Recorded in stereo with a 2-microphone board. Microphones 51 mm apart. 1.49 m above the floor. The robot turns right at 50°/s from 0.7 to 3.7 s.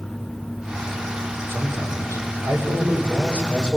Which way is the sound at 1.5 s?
125° right.